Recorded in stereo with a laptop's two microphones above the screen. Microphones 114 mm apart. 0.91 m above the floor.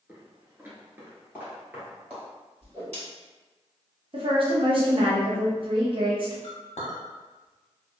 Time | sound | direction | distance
0.1 | footsteps | 15° right (ahead or behind) | 0.9 m
2.6 | a whoosh | 65° right (ahead or behind) | 1.7 m
4.1 | a woman speaking | 50° right (ahead or behind) | 0.6 m
6.4 | a clink | 75° left (ahead or behind) | 0.8 m